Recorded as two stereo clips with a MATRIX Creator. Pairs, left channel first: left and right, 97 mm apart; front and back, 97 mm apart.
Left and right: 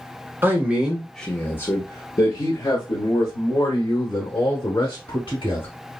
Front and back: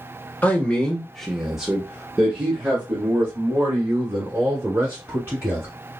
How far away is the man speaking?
About 0.9 m.